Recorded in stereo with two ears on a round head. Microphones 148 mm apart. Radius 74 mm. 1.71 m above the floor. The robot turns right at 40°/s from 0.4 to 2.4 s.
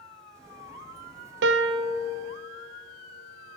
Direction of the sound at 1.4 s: 75° right (ahead or behind).